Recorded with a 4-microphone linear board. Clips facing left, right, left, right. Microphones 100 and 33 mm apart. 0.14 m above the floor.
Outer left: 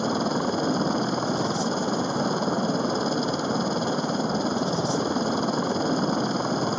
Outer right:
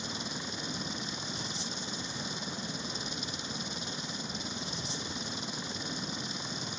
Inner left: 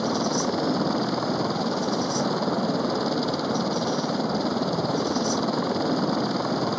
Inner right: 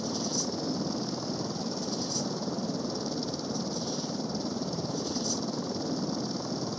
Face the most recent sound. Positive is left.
turn(degrees=65)  # may be behind; listen again after turning